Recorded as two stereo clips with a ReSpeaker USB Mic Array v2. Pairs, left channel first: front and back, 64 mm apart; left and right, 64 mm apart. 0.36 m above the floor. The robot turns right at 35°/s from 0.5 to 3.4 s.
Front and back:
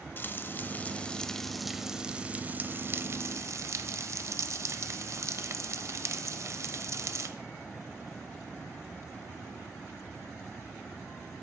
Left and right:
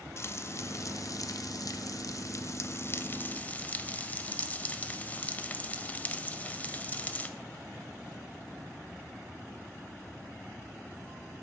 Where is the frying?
50° left, 0.6 m; by 7.3 s 155° left, 0.6 m.